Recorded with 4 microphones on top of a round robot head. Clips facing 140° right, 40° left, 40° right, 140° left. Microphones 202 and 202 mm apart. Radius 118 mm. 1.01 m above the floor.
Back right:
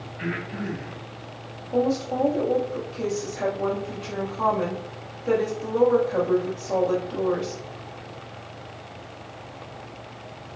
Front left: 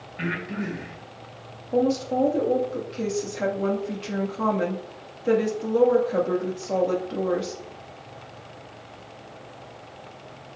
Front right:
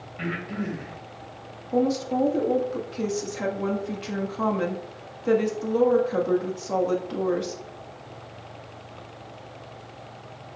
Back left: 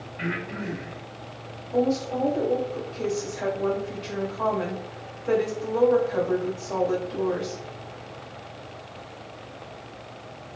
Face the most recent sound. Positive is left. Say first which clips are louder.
# front left 1 dB, front right 1 dB
turn(degrees=-25)